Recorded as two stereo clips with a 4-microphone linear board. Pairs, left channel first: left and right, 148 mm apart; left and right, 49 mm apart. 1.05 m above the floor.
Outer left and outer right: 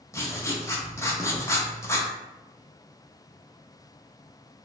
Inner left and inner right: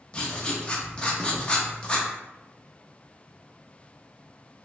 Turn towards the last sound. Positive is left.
turn(degrees=20)  # may be behind; listen again after turning